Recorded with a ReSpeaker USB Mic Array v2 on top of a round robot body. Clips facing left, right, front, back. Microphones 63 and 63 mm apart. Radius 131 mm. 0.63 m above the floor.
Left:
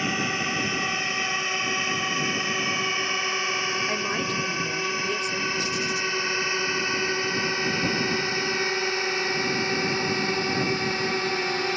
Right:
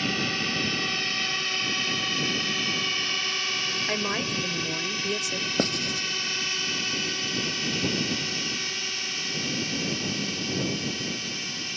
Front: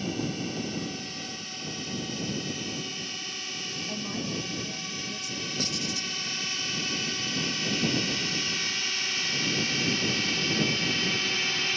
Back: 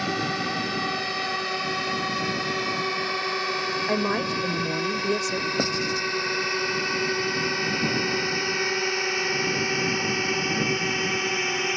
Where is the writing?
125° right.